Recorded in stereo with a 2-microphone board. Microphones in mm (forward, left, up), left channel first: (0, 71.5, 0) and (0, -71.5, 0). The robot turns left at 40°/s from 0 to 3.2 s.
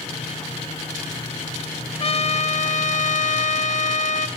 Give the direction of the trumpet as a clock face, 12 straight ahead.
8 o'clock.